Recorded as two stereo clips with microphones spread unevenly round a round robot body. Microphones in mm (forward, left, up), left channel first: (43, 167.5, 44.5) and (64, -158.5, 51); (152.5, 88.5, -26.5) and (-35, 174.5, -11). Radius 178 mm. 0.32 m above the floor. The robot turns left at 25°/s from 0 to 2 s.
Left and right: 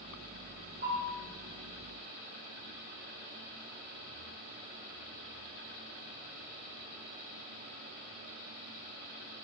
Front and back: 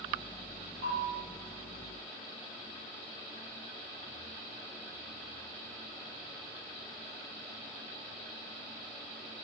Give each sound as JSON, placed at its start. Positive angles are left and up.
{"t": 0.8, "sound": "a bell", "azimuth_deg": -135, "distance_m": 1.9}